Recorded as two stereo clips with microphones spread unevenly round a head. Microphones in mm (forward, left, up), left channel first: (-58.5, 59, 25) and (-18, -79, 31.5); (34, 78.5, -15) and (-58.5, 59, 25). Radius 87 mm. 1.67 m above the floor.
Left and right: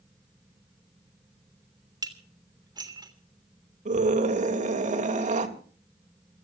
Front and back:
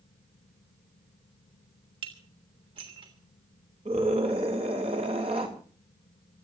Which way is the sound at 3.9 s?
110° right.